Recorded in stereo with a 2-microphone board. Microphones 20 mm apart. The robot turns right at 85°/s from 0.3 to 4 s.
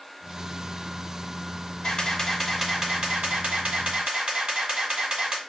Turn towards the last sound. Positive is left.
turn(degrees=-55)